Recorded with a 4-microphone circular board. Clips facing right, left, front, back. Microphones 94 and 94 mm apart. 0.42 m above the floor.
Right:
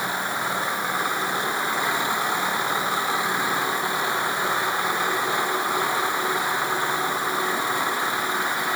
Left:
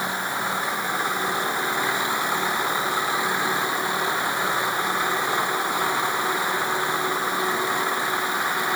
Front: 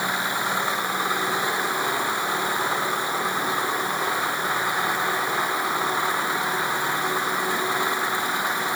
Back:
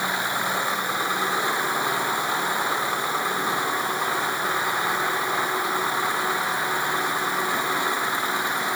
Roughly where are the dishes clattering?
I don't hear dishes clattering.